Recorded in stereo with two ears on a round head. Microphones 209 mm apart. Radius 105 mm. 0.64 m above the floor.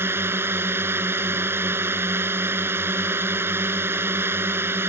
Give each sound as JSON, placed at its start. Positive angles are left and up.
{"t": 0.0, "sound": "a drone", "side_deg": -10}